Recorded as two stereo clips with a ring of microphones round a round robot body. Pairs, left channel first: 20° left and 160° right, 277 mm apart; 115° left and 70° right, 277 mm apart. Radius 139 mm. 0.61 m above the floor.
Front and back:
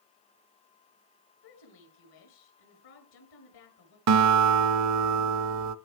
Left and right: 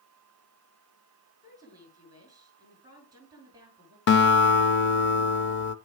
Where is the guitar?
165° left, 0.6 m.